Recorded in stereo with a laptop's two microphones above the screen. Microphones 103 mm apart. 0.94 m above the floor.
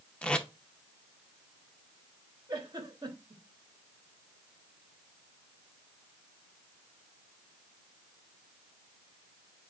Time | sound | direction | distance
0.2 | tape being pulled | 10° left (ahead or behind) | 0.6 m
2.5 | a giggle | 40° right (ahead or behind) | 1.2 m